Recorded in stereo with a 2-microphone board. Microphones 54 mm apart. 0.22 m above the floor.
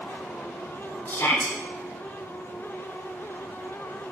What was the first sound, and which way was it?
A shout, 40° left (ahead or behind).